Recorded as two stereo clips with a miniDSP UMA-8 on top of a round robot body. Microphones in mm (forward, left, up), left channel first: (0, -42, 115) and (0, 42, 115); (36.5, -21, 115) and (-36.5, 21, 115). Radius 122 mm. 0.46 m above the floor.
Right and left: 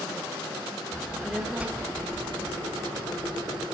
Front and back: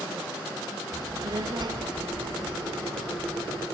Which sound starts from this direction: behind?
A child speaking, at 0.9 s.